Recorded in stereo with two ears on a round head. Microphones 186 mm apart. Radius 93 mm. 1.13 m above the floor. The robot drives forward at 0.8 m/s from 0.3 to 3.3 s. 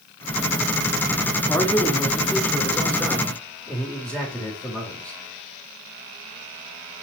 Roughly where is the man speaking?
Centre.